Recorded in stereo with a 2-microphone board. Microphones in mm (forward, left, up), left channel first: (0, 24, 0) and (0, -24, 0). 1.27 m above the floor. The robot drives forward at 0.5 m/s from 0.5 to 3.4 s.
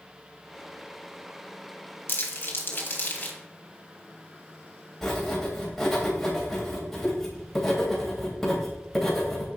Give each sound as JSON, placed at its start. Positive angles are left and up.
{"t": 2.1, "sound": "crumpling", "side_deg": 50, "distance_m": 1.6}
{"t": 5.0, "sound": "writing", "side_deg": 5, "distance_m": 3.0}